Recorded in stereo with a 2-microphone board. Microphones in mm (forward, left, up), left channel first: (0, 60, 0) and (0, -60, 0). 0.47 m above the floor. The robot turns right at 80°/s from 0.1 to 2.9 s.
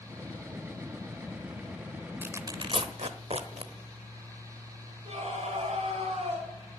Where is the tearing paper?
15° right (ahead or behind), 1.0 m; by 3.7 s 60° right (ahead or behind), 1.0 m.